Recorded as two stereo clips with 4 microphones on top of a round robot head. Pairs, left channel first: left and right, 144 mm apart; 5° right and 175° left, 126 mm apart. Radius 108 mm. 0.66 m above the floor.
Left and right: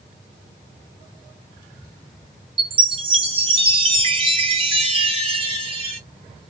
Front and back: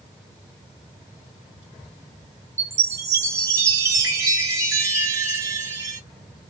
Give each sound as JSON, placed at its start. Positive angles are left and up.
{"t": 2.6, "sound": "a chime", "azimuth_deg": -125, "distance_m": 1.0}